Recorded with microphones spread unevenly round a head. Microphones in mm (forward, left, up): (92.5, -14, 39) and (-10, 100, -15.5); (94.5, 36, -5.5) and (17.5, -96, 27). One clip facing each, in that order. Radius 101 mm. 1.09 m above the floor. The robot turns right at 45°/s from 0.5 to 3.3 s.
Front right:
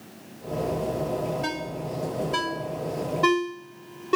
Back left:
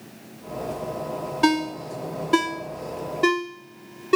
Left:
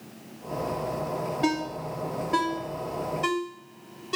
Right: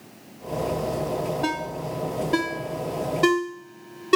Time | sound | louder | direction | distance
1.4 | a ringtone | back left 9 dB, left 1 dB | 135° left | 1.1 m